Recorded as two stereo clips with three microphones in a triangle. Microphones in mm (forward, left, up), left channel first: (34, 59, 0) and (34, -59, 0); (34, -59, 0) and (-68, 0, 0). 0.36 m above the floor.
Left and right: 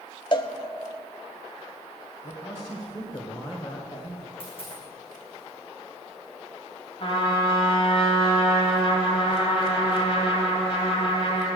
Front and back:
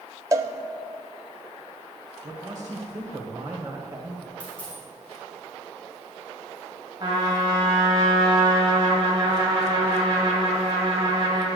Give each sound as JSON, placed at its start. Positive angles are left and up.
{"t": 0.3, "sound": "a cowbell", "azimuth_deg": 105, "distance_m": 0.6}
{"t": 2.2, "sound": "a man speaking", "azimuth_deg": 100, "distance_m": 1.6}
{"t": 4.4, "sound": "a dropped coin", "azimuth_deg": 50, "distance_m": 4.5}
{"t": 7.0, "sound": "a trumpet", "azimuth_deg": 110, "distance_m": 2.0}